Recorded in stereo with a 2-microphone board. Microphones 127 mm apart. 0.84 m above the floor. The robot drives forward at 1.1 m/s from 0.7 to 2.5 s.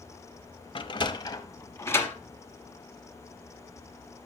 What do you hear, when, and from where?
0.8 s a sliding door: 40° left (ahead or behind), 0.8 m; by 2.1 s 15° left (ahead or behind), 1.7 m